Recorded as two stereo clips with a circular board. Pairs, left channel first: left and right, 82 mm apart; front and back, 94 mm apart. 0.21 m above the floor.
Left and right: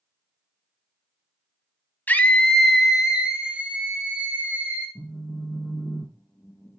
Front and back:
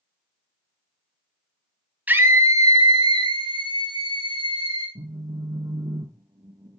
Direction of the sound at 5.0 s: 165° left.